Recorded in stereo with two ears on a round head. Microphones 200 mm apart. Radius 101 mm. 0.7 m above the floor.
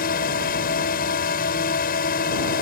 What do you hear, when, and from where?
0.0 s a drone: 40° left (ahead or behind)